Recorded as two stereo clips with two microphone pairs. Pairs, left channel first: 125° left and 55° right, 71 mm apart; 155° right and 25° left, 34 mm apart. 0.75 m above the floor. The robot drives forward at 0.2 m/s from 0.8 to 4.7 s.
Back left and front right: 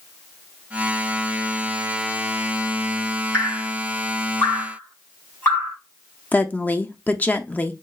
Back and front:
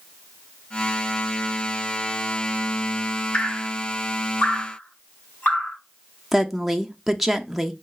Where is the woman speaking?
115° left, 0.6 m.